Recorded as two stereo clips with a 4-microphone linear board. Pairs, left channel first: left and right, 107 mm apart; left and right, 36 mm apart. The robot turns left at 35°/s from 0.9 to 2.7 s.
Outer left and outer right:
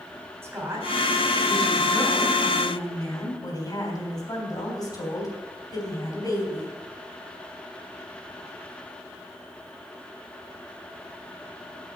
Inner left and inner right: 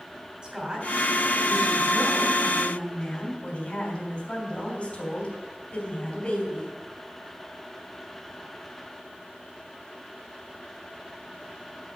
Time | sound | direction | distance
0.4 | a woman speaking | 155° right | 3 m